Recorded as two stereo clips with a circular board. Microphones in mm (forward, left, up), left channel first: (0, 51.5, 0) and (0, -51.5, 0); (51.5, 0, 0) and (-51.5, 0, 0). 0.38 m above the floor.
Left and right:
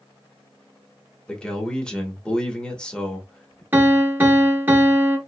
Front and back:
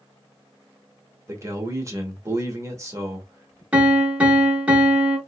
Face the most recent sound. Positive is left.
turn(degrees=-120)